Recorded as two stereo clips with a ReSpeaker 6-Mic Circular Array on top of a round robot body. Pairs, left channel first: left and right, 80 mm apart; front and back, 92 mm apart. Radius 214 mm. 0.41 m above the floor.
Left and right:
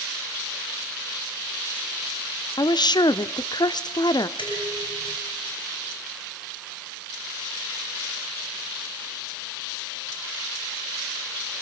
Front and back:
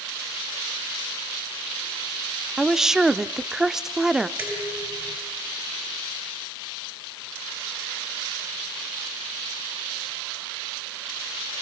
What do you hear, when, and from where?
2.6 s a woman speaking: 95° left, 1.4 m
4.4 s dishes clattering: 110° left, 7.5 m